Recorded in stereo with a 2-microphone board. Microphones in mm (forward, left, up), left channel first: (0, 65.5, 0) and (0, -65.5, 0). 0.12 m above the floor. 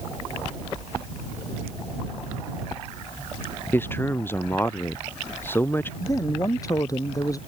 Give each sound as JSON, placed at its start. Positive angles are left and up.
{"t": 3.7, "sound": "a man speaking", "side_deg": 15}
{"t": 6.0, "sound": "a man speaking", "side_deg": 25}